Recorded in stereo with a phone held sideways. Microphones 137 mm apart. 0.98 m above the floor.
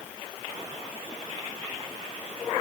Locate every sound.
Only background noise.